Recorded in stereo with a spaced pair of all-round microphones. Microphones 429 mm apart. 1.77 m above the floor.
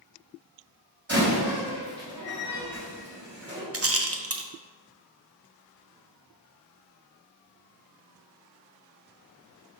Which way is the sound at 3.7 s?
35° right (ahead or behind).